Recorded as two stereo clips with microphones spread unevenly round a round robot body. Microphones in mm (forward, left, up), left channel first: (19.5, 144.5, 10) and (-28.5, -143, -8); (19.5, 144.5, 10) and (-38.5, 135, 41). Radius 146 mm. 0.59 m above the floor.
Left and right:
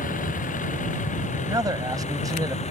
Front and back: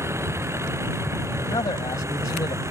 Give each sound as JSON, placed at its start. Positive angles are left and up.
{"t": 0.0, "sound": "a vehicle", "azimuth_deg": 145}
{"t": 1.4, "sound": "a man speaking", "azimuth_deg": -20}